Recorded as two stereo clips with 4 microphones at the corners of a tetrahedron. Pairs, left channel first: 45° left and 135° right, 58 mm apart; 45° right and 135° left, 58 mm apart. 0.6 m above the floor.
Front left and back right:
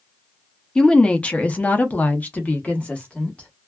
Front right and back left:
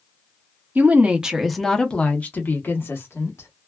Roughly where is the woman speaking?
Behind left.